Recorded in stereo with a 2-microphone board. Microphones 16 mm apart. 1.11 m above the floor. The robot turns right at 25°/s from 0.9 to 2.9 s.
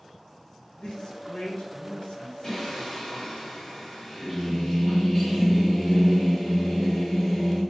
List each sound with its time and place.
0.8 s a man speaking: 60° left, 1.1 m; by 3.4 s 110° left, 1.1 m
2.4 s singing: 35° left (ahead or behind), 1.9 m; by 7.6 s 25° left (ahead or behind), 1.9 m